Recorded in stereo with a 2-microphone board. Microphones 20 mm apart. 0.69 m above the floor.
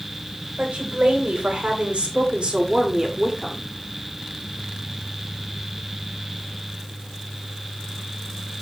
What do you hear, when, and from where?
0.6 s a woman speaking: 70° right (ahead or behind), 4 m; by 3.7 s 5° right (ahead or behind), 2.5 m